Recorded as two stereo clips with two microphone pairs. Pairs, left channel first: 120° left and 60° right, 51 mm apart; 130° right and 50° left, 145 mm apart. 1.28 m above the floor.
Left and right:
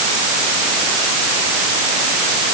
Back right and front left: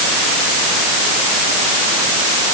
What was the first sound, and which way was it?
Only background noise.